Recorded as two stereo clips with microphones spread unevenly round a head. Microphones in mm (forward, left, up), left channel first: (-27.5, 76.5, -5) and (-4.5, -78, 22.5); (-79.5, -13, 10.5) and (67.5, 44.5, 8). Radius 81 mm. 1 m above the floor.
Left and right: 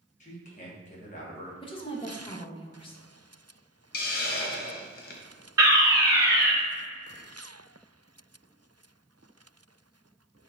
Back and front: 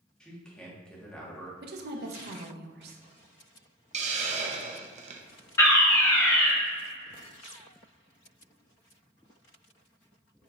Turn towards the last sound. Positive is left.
turn(degrees=-125)